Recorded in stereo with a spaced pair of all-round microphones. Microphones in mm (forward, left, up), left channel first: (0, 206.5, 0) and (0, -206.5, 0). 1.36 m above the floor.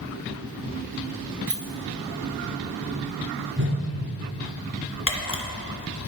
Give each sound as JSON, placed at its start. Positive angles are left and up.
{"t": 1.5, "sound": "keys jangling", "side_deg": -55, "distance_m": 1.1}
{"t": 3.6, "sound": "a whoosh", "side_deg": -25, "distance_m": 0.9}
{"t": 5.1, "sound": "a camera shutter", "side_deg": 30, "distance_m": 0.9}